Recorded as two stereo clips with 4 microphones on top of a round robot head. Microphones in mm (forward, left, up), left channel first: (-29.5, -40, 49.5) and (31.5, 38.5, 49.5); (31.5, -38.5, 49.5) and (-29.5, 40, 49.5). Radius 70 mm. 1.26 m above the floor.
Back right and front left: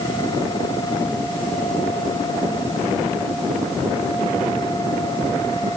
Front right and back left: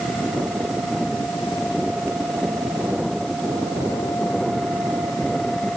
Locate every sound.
Only background noise.